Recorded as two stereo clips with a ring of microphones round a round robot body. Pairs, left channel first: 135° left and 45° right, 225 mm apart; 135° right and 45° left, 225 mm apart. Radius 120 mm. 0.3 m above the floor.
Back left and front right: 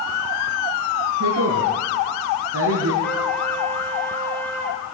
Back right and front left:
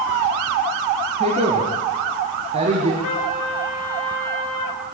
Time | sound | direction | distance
1.2 | a woman speaking | 20° right | 5 m
3.0 | a trumpet | 140° right | 5 m